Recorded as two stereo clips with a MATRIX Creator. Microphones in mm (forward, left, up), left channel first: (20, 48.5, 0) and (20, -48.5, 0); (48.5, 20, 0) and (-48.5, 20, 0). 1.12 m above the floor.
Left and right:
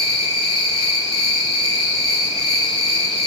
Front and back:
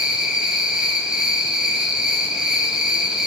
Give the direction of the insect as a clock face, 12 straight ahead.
9 o'clock.